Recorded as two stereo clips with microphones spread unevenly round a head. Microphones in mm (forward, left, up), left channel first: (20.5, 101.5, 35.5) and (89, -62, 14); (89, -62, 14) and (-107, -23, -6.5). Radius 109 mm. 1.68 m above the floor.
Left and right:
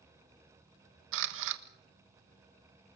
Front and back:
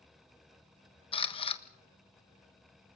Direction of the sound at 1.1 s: 70° right.